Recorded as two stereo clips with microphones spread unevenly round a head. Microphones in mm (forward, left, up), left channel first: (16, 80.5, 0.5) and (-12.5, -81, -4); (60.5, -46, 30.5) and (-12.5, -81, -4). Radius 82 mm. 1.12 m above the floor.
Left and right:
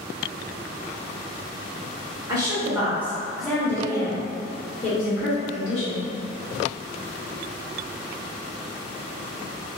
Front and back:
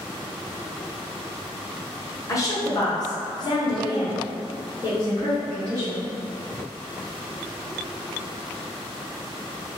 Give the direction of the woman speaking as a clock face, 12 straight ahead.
1 o'clock.